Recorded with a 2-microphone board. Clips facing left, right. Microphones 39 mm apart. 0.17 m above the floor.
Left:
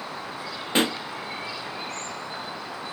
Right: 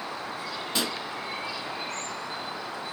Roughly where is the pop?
Left.